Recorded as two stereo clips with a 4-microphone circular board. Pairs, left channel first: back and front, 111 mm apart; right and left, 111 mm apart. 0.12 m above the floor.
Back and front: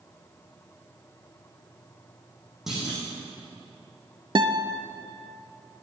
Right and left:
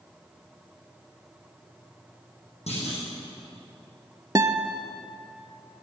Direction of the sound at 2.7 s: 85° right.